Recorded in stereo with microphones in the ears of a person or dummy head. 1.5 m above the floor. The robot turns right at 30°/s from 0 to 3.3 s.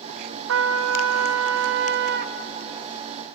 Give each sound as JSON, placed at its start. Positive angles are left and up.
{"t": 0.5, "sound": "a trumpet", "azimuth_deg": -110, "distance_m": 0.5}